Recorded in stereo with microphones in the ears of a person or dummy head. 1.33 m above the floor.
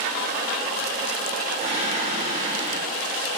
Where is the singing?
35° right (ahead or behind), 1.4 m.